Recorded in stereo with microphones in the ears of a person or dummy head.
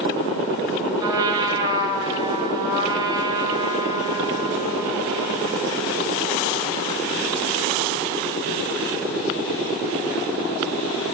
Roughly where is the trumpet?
Right.